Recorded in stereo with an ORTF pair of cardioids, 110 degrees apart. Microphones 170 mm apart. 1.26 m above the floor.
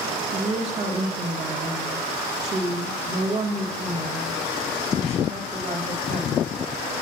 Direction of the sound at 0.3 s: 40° right.